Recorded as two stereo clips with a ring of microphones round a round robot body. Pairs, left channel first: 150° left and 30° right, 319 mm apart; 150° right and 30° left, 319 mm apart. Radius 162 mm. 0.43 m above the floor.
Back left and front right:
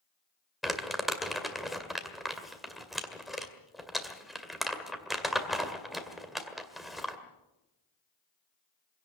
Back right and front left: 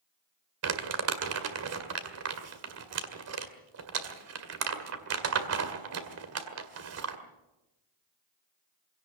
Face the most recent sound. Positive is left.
turn(degrees=60)